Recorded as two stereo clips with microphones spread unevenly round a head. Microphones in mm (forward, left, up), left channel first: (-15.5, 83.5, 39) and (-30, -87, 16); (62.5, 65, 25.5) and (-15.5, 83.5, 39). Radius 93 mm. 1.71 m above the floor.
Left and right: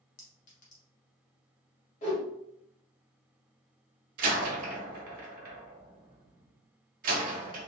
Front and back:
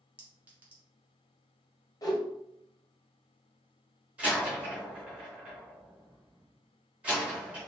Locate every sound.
0.2 s a clink: 110° left, 1.3 m
2.0 s a whoosh: 30° left, 1.4 m
4.2 s a door slam: 125° right, 0.9 m